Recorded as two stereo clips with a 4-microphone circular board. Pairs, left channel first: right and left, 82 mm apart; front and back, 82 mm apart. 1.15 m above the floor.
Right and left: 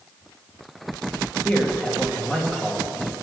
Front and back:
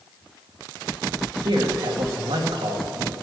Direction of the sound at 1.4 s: 170° right.